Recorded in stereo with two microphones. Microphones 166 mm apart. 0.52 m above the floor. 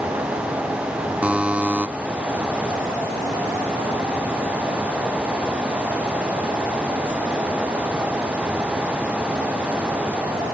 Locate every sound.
1.2 s a buzzer: 10° right (ahead or behind)